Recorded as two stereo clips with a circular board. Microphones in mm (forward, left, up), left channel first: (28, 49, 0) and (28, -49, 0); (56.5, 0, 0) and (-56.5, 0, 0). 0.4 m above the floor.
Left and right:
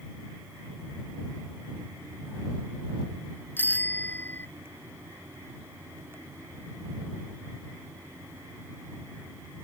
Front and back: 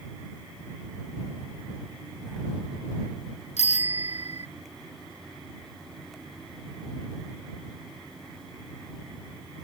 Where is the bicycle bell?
20° left.